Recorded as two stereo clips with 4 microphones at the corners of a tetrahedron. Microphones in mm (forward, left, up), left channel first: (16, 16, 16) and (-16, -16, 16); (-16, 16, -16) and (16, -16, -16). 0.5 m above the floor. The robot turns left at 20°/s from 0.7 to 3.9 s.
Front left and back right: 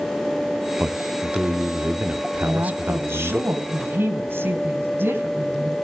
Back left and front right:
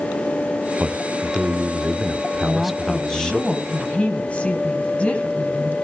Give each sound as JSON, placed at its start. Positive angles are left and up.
{"t": 0.8, "sound": "a man speaking", "azimuth_deg": -95, "distance_m": 0.9}
{"t": 2.4, "sound": "a woman speaking", "azimuth_deg": -135, "distance_m": 3.0}